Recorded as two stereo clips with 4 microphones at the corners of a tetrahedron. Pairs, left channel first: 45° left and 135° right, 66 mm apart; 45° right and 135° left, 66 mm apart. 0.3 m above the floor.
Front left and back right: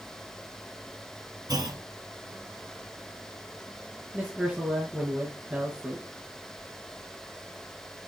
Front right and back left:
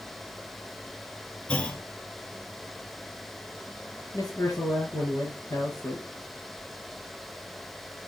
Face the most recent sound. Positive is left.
turn(degrees=-65)